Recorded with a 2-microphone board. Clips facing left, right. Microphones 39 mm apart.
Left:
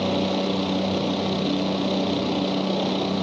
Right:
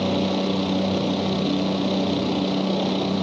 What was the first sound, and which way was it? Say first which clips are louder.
A helicopter: right 1 dB; centre (ahead or behind).